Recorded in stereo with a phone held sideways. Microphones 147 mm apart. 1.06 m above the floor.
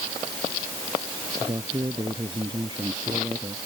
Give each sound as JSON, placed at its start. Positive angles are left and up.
{"t": 1.4, "sound": "a man speaking", "side_deg": -30}